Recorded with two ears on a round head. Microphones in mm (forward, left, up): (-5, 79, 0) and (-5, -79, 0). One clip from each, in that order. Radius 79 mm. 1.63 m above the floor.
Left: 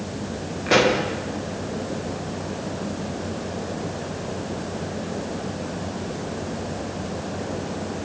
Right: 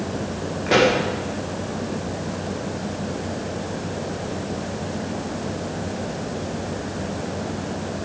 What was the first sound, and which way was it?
A pop, 15° left (ahead or behind).